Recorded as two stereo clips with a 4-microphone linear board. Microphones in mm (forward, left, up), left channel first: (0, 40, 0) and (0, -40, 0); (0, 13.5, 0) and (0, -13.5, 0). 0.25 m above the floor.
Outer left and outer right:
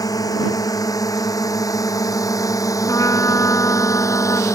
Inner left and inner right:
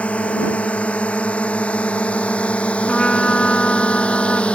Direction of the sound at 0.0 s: 50° left (ahead or behind).